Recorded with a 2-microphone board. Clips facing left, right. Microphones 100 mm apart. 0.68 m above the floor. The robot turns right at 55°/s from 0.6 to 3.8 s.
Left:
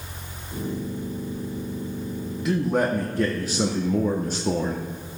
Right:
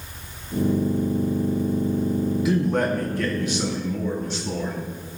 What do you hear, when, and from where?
2.5 s a man speaking: 5° right, 1.0 m; by 4.8 s 70° left, 1.0 m